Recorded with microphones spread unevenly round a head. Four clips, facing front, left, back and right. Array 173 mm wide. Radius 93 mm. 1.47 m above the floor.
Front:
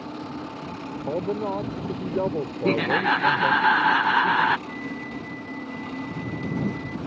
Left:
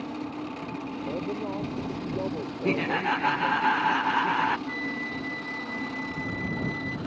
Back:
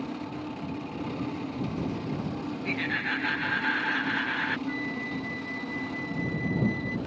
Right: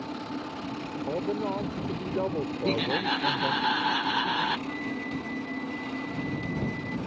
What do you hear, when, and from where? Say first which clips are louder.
1.1 s a man speaking: right 3 dB, front 11 dB; 10° right
2.6 s laughter: left 3 dB, front 13 dB; 15° left
4.7 s a flute: even, back 1 dB; 85° left